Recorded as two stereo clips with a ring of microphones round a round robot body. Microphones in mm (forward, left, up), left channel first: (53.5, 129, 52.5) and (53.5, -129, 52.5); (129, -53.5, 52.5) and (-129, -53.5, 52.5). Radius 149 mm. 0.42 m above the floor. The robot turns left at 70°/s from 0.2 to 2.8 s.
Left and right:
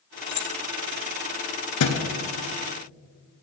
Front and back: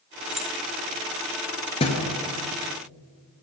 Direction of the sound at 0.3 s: 95° left.